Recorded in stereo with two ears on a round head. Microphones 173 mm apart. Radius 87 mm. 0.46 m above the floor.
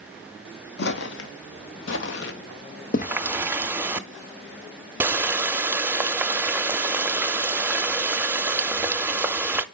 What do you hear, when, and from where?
0.8 s footsteps: 60° left (ahead or behind), 1.3 m; by 4.0 s 25° left (ahead or behind), 1.6 m
3.0 s a running tap: 10° right (ahead or behind), 0.5 m